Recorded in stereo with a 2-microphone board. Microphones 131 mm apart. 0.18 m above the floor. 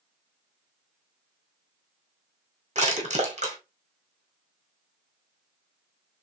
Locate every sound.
2.8 s crushing: 60° right (ahead or behind), 2 m